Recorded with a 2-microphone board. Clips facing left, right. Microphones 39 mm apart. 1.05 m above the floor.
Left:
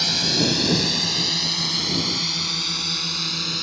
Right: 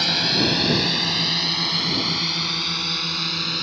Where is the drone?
15° right (ahead or behind); by 3.6 s 10° right (ahead or behind).